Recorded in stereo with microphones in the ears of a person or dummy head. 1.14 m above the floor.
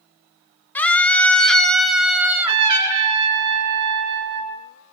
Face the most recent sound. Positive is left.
turn(degrees=-25)  # may be behind; listen again after turning